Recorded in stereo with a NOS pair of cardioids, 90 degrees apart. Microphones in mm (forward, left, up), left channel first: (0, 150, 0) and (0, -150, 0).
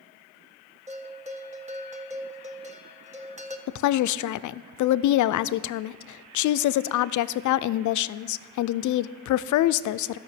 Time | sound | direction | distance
0.9 | a bell | 20° right | 1.4 m
3.7 | a woman speaking | 70° left | 0.5 m